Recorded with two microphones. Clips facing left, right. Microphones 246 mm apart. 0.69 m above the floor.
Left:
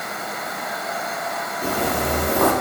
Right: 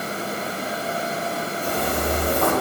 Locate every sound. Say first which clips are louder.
1.6 s footsteps: left 3 dB; 75° left (ahead or behind), 5 m